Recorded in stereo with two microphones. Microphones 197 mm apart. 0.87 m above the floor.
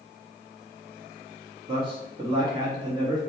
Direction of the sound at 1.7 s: 25° right (ahead or behind).